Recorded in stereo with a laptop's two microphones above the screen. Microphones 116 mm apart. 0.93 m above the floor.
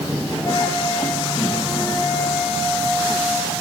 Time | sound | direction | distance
0.4 | a flute | 35° left (ahead or behind) | 6.5 m